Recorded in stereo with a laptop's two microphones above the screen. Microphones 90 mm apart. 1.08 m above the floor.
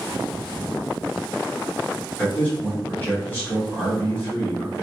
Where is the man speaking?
20° left (ahead or behind), 1.1 m.